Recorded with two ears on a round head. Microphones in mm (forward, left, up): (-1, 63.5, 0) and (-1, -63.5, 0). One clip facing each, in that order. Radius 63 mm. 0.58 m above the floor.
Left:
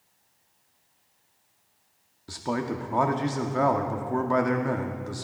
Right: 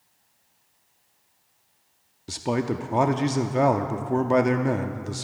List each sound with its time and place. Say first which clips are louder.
2.3 s a man speaking: right 3 dB; 25° right (ahead or behind), 0.6 m